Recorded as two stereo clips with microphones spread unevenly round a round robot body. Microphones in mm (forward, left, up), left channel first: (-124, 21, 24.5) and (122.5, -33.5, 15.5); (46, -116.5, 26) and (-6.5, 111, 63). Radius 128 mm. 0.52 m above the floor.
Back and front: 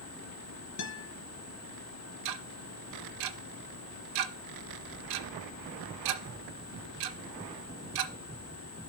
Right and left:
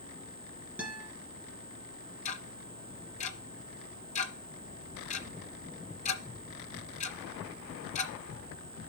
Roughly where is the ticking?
Ahead.